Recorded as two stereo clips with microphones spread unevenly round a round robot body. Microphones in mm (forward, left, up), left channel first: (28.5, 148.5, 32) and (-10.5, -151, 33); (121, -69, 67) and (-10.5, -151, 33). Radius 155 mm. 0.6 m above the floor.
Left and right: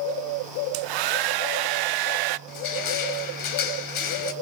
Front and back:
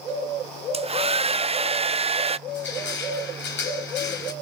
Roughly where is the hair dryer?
Right.